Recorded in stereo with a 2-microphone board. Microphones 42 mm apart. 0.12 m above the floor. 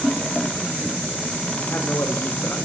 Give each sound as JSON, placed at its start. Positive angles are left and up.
{"t": 1.6, "sound": "a man speaking", "side_deg": 55, "distance_m": 7.5}